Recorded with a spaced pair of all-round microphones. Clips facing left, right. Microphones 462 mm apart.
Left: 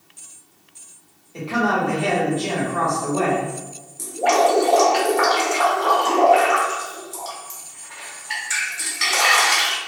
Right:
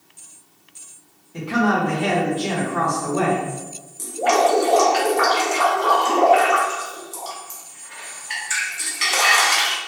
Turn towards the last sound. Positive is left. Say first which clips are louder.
# even
turn(degrees=25)  # may be behind; listen again after turning